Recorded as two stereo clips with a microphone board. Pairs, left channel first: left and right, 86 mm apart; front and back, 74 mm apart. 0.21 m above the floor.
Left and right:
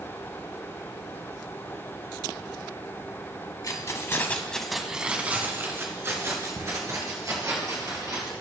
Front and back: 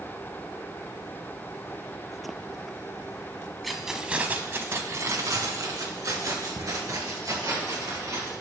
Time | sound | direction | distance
3.6 | keys jangling | 90° left | 1.0 m